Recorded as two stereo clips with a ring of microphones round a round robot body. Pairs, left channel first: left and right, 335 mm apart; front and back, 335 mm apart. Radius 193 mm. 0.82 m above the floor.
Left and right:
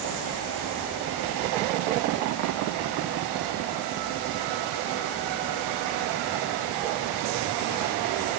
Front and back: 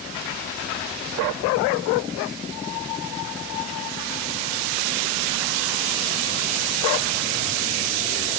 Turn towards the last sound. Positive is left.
No sound to turn to.